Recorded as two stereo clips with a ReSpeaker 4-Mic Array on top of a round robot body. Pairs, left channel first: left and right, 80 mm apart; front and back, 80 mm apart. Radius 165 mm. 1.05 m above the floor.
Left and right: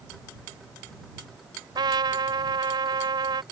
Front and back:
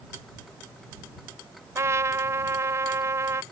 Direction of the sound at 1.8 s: 125° right.